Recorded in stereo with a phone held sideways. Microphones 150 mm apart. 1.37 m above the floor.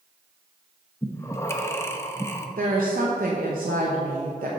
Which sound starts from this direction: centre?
Breathing, at 1.0 s.